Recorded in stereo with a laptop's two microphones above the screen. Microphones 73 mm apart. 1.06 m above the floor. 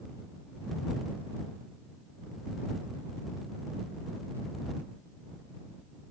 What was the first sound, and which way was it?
Only background noise.